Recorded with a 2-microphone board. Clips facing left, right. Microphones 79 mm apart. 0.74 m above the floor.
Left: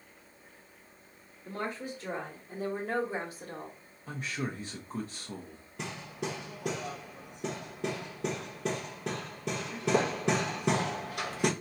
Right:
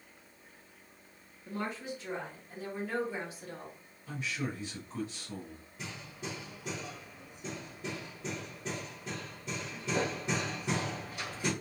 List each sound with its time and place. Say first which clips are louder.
1.4 s a woman speaking: left 1 dB; 45° left (ahead or behind), 1.7 m; by 3.8 s 35° left (ahead or behind), 1.4 m
4.1 s a man speaking: left 1 dB; 40° left (ahead or behind), 0.8 m
5.8 s hammering: left 6 dB; 75° left (ahead or behind), 0.8 m